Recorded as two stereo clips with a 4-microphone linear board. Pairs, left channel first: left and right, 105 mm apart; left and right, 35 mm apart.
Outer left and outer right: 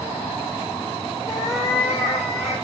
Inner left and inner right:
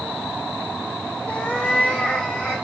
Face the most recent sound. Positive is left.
turn(degrees=25)  # may be behind; listen again after turning